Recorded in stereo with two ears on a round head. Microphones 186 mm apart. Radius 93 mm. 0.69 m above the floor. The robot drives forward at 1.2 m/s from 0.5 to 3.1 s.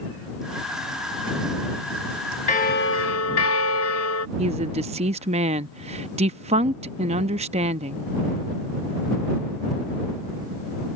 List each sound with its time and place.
2.5 s a bell: 35° left (ahead or behind); by 4.3 s 75° left (ahead or behind)
4.4 s a woman speaking: 30° right (ahead or behind)